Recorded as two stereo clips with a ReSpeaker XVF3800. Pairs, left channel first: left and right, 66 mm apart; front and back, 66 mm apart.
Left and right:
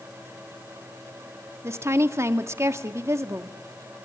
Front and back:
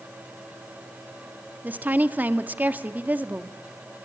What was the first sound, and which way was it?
A woman speaking, 125° right.